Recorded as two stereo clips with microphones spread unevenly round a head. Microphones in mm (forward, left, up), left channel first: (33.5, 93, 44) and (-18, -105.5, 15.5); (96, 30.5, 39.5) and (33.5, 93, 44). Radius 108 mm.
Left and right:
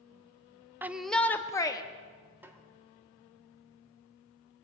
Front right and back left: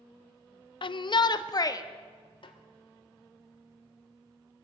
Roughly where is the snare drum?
Ahead right.